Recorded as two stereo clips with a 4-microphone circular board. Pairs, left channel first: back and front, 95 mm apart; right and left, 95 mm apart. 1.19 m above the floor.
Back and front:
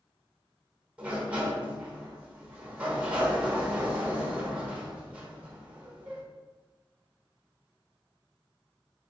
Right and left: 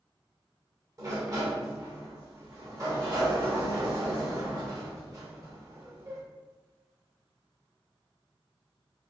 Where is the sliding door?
65° left, 1.0 m.